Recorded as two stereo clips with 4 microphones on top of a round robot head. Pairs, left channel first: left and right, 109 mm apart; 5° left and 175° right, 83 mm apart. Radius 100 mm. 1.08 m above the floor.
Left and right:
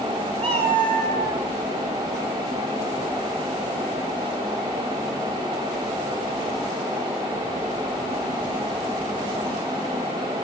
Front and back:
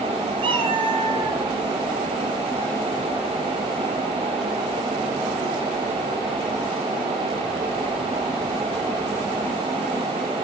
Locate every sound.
0.4 s a cat meowing: 140° right, 3 m